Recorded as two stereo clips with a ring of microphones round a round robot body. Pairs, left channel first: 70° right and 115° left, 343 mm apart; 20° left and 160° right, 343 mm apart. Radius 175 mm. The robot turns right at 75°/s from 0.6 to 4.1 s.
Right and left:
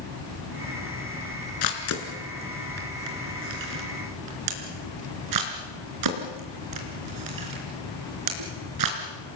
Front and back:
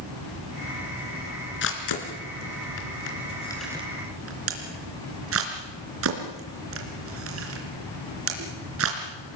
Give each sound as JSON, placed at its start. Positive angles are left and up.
{"t": 1.6, "sound": "a camera shutter", "azimuth_deg": -40, "distance_m": 3.5}